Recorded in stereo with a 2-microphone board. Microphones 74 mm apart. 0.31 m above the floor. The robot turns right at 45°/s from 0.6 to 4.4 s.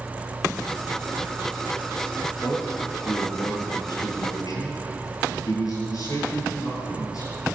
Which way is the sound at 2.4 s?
35° left.